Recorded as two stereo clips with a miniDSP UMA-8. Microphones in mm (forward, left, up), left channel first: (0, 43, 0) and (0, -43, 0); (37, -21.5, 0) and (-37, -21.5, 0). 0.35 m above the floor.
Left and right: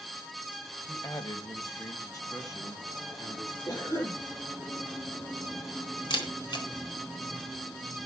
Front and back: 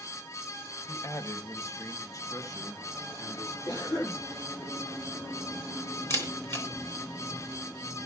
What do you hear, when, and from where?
0.9 s a man speaking: 45° left, 1.4 m; by 3.6 s 40° left, 3 m
3.7 s a cough: 35° left, 9.5 m
6.1 s a camera shutter: 50° left, 4 m